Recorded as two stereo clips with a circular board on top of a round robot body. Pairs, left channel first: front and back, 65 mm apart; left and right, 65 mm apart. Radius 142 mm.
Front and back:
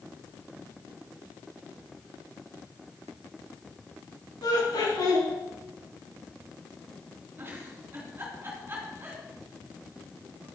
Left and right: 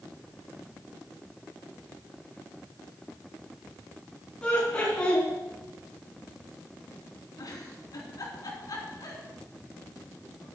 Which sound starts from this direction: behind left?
A giggle, at 7.4 s.